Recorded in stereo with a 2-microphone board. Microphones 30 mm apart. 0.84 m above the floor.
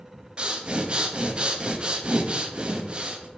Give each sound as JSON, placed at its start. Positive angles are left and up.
{"t": 0.4, "sound": "breathing", "side_deg": -40, "distance_m": 1.0}